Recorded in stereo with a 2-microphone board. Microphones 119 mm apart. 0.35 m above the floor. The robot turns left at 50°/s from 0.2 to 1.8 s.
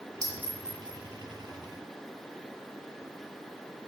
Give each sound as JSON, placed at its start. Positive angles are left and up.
{"t": 0.2, "sound": "a clink", "side_deg": -25, "distance_m": 1.5}